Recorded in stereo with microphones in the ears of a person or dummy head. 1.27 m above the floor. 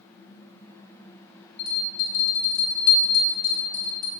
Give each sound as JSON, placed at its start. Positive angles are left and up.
{"t": 1.6, "sound": "a bell", "side_deg": 75, "distance_m": 1.9}